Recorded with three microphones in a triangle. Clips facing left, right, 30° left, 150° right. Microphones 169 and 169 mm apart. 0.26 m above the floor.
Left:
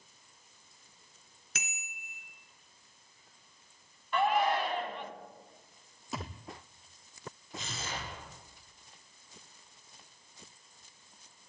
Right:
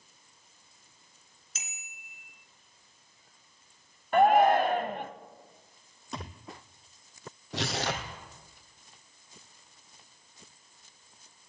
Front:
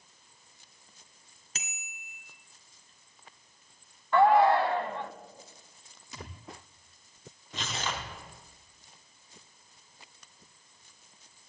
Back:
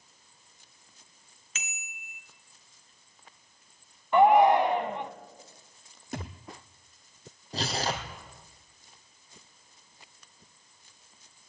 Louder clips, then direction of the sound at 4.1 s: Right 8 dB, back 2 dB; 85° right.